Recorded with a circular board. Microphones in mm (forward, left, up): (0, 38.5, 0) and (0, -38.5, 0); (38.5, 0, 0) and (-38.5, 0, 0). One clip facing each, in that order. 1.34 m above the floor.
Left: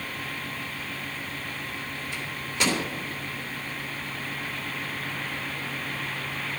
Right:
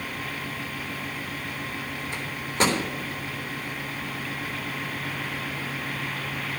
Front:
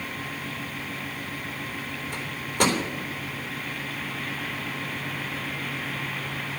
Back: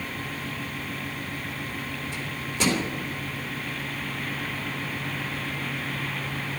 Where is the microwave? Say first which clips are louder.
Right 5 dB, front 3 dB; 40° right, 3.5 m.